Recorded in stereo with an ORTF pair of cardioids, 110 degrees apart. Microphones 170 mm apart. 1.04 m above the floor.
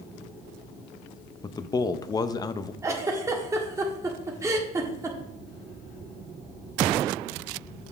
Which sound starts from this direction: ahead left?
A man speaking, at 1.4 s.